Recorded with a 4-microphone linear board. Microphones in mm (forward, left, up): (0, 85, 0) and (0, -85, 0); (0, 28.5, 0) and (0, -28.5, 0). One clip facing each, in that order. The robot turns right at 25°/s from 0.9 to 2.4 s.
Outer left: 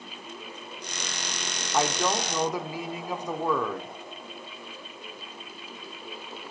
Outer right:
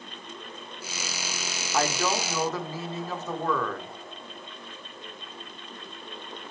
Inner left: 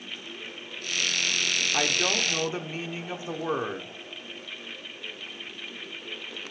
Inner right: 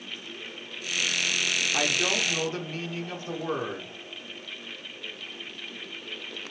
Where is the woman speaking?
5° left (ahead or behind), 1.1 m; by 3.9 s 15° left (ahead or behind), 1.1 m.